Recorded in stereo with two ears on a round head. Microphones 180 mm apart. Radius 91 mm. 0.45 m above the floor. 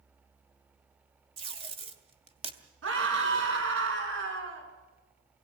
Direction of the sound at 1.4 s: 30° right (ahead or behind).